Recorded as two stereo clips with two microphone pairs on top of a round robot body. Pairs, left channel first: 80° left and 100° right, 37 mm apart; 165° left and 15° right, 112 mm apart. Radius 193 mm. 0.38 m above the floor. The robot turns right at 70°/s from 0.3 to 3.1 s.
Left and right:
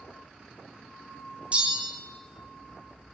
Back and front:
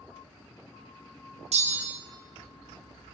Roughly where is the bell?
Ahead right.